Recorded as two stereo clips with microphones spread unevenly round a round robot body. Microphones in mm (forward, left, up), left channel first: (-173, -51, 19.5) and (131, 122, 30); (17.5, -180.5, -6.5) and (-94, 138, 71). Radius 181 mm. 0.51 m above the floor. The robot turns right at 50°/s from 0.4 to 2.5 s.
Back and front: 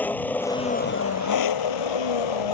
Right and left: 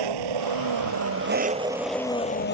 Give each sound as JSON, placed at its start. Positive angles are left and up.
{"t": 0.0, "sound": "an engine running", "azimuth_deg": 125}